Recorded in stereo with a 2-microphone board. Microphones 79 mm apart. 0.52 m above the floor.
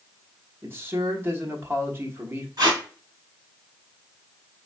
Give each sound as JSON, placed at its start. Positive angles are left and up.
{"t": 0.6, "sound": "a man speaking", "side_deg": -30, "distance_m": 1.0}
{"t": 2.6, "sound": "tape being pulled", "side_deg": -55, "distance_m": 2.5}